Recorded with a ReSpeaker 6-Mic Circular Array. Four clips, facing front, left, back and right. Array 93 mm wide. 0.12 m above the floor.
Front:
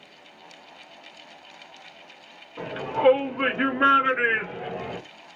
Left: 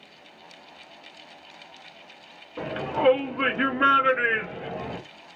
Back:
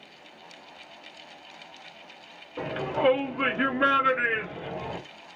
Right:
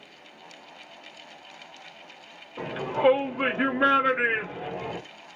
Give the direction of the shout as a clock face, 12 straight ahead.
8 o'clock.